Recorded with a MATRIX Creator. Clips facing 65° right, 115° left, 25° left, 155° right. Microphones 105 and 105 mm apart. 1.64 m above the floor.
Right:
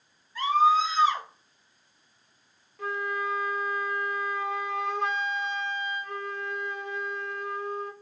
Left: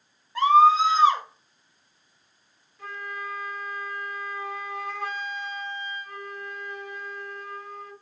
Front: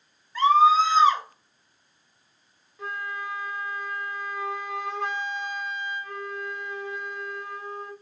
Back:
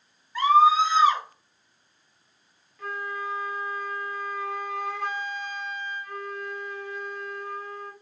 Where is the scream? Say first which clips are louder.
Left 5 dB, even; 125° left, 1.9 m.